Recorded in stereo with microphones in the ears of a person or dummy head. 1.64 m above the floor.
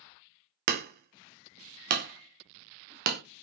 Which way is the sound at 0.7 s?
50° right (ahead or behind).